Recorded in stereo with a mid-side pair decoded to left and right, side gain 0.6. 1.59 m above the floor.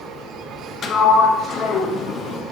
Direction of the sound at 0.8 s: 40° left.